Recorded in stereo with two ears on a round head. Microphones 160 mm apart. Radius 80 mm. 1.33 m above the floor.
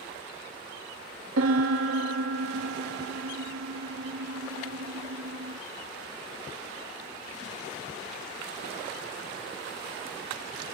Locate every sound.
1.4 s a piano: 80° right, 1.7 m